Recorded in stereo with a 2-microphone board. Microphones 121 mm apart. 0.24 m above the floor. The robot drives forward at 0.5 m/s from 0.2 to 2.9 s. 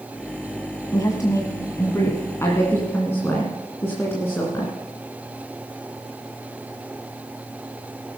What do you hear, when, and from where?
0.9 s a woman speaking: 30° left (ahead or behind), 1.3 m; by 4.7 s 20° left (ahead or behind), 1.9 m